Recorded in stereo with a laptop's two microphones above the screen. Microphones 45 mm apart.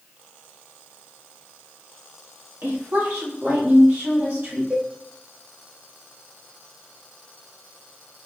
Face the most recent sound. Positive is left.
turn(degrees=-30)  # may be behind; listen again after turning